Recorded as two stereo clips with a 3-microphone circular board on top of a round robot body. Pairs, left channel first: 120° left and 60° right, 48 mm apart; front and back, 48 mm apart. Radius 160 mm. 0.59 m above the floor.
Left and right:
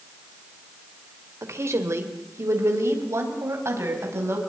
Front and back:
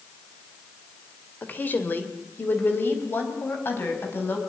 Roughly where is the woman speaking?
Ahead right.